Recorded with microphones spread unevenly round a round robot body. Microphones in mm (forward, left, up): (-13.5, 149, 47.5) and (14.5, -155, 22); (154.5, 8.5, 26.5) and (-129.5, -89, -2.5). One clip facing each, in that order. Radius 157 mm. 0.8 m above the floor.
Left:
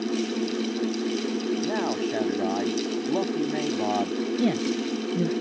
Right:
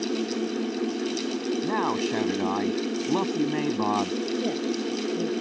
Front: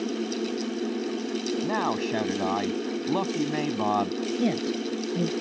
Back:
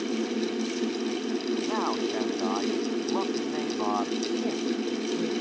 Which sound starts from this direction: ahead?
A man speaking, at 1.6 s.